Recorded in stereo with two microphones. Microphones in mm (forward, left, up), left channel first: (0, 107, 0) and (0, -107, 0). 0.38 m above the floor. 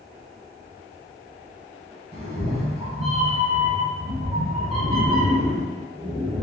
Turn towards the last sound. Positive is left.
turn(degrees=-30)  # may be behind; listen again after turning